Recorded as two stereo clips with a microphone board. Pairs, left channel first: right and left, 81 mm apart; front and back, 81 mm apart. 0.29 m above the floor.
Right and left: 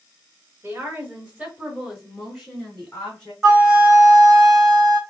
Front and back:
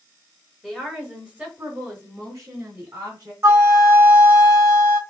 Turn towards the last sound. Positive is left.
turn(degrees=165)